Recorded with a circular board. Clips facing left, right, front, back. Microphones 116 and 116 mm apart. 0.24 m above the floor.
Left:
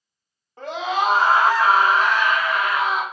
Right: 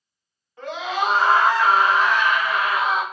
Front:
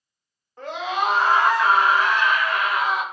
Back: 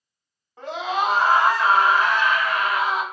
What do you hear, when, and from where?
0.6 s a scream: 110° left, 1.3 m; by 3.0 s 135° right, 1.5 m